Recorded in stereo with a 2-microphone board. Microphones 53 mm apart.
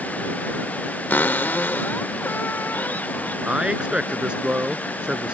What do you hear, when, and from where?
1.1 s a cupboard door: 40° left (ahead or behind)
3.5 s a man speaking: 20° right (ahead or behind)